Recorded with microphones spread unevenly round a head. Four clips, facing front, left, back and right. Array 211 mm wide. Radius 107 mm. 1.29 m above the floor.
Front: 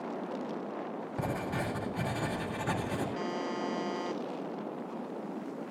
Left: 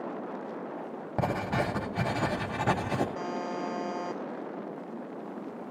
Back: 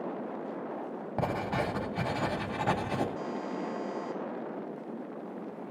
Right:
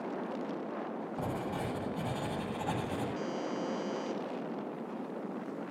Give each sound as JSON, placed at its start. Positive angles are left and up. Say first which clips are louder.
{"t": 1.2, "sound": "writing", "louder": "left 9 dB, back 4 dB", "azimuth_deg": 90, "distance_m": 2.0}
{"t": 3.1, "sound": "a buzzer", "louder": "left 2 dB, front 1 dB", "azimuth_deg": 55, "distance_m": 1.8}